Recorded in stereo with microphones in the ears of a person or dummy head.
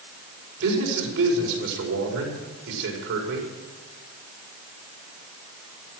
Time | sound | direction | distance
0.6 | a man speaking | 80° right | 5 m